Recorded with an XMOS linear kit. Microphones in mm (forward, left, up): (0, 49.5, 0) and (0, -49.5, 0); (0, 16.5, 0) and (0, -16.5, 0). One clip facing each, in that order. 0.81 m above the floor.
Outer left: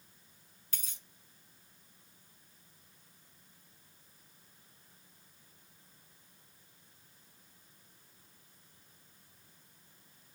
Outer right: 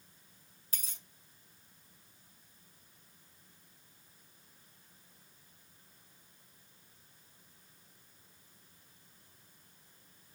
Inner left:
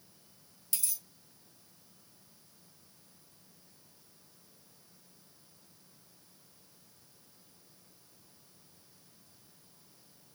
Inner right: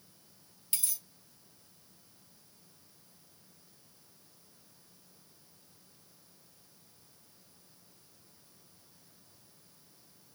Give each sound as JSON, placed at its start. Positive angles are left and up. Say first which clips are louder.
{"t": 0.7, "sound": "a dropped coin", "louder": "outer right 1 dB, inner right 1 dB", "side_deg": -35, "distance_m": 2.0}